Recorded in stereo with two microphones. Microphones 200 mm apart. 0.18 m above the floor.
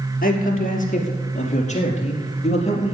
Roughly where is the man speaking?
Left.